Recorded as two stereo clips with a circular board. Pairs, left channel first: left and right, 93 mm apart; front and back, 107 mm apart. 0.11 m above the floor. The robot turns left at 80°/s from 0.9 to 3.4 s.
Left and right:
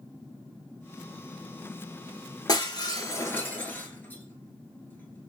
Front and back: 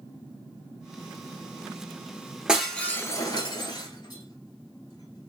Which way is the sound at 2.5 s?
100° left.